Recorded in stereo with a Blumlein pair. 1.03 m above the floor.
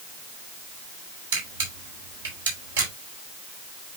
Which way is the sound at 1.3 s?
60° right.